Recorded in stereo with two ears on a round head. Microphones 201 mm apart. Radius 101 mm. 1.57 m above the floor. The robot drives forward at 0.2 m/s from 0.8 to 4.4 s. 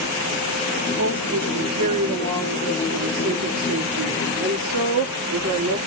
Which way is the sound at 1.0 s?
85° right.